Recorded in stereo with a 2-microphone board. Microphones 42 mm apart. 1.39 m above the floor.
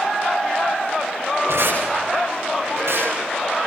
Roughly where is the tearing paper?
Right.